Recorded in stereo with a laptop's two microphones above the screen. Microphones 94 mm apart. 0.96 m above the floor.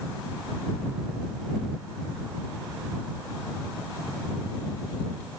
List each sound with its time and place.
Only background noise.